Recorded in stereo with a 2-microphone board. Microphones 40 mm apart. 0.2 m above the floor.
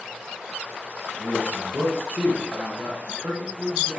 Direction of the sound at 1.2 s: 20° right (ahead or behind).